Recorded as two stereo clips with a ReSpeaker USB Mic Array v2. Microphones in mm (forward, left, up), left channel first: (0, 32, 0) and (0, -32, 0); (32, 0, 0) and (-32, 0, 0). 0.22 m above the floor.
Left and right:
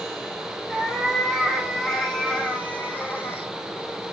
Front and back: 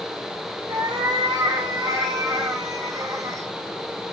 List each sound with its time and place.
0.7 s a cat meowing: straight behind, 3 m; by 3.5 s 140° left, 2 m